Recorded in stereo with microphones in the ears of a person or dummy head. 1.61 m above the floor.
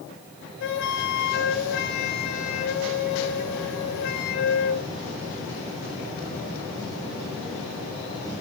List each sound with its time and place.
0.6 s a flute: 65° left (ahead or behind), 3.5 m